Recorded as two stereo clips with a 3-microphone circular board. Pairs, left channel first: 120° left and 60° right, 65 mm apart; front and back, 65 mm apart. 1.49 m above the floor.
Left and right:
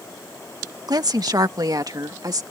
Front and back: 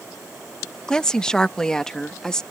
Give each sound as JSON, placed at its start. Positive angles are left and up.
{"t": 0.9, "sound": "a woman speaking", "azimuth_deg": -80}